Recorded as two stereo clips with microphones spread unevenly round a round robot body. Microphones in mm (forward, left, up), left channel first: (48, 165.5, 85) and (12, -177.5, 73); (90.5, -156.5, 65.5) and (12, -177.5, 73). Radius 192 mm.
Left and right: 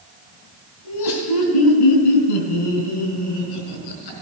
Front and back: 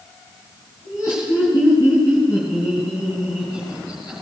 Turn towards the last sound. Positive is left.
turn(degrees=85)